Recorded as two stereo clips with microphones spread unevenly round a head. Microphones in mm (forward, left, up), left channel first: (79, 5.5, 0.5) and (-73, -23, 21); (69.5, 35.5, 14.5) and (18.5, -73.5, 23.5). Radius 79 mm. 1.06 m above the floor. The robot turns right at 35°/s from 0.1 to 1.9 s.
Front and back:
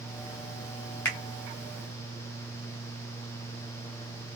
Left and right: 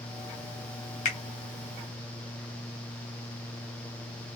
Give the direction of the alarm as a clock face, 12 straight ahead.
No alarm in this recording.